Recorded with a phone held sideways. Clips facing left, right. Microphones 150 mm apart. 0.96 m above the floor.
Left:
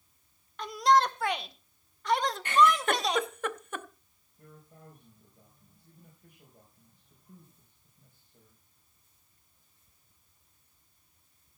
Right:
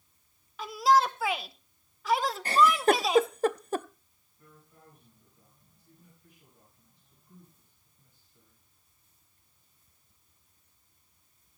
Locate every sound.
0.6 s a shout: 5° right (ahead or behind), 0.8 m
2.5 s a giggle: 35° right (ahead or behind), 0.5 m
4.4 s a man speaking: 55° left (ahead or behind), 4.5 m